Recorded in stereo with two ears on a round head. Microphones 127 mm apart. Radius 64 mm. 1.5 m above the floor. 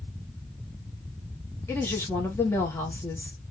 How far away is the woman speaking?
About 1.6 m.